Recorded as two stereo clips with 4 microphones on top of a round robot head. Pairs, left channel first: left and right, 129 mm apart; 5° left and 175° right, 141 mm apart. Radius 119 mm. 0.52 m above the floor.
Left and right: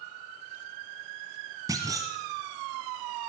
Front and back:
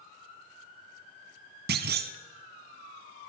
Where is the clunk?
160° right, 0.9 m.